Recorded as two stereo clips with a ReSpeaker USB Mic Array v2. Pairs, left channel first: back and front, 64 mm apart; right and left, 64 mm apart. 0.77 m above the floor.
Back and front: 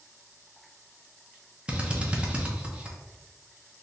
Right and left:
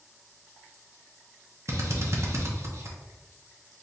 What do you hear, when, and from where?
1.7 s a drill: 70° left, 0.6 m